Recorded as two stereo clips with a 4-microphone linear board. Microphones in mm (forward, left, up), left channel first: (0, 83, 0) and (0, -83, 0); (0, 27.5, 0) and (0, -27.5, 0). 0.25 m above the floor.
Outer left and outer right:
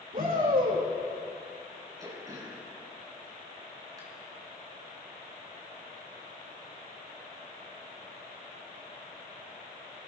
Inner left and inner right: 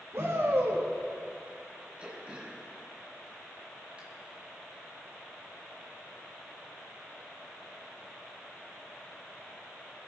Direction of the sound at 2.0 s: 25° right (ahead or behind).